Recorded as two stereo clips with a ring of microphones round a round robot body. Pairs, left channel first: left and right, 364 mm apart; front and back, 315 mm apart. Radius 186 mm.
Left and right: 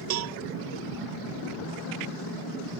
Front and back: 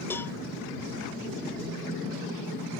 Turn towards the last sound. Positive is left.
turn(degrees=-80)